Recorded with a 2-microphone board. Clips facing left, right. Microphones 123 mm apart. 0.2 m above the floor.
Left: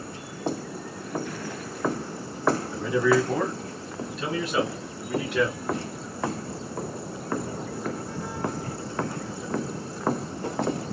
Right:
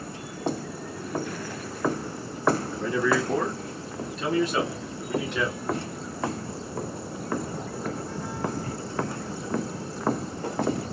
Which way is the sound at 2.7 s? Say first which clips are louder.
Left 3 dB; 5° left (ahead or behind).